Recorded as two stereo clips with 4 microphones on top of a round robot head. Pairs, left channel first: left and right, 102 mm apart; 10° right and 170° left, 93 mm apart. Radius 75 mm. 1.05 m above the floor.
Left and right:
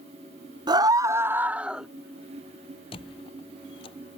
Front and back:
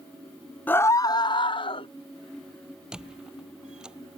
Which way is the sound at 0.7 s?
75° right.